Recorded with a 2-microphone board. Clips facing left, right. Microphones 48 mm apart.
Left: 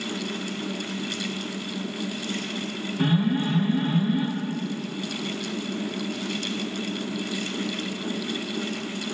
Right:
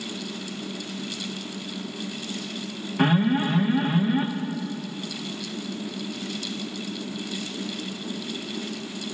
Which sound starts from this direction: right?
An alarm, at 3.0 s.